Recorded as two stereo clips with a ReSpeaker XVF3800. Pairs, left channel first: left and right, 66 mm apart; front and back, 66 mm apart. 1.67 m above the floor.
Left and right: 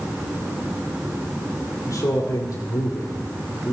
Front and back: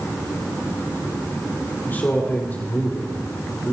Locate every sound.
1.9 s a man speaking: 60° left, 4.5 m